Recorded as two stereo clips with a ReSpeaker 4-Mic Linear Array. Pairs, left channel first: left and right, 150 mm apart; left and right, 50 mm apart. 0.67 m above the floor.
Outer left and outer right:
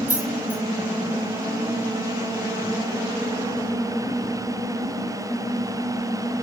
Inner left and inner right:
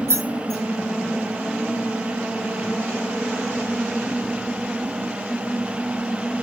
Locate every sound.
0.1 s keys jangling: 70° right (ahead or behind), 3.5 m